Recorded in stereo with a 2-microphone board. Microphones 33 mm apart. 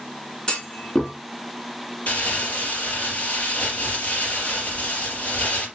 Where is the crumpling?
45° left (ahead or behind), 4.5 m.